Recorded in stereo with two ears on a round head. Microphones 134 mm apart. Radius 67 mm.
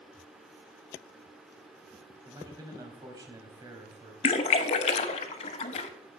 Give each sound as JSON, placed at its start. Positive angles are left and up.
{"t": 2.2, "sound": "a man speaking", "side_deg": -25, "distance_m": 2.5}
{"t": 4.2, "sound": "a splash", "side_deg": 40, "distance_m": 0.8}